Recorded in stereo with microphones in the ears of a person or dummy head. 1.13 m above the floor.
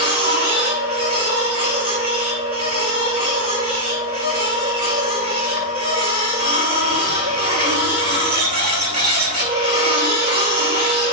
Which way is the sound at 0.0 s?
40° right (ahead or behind).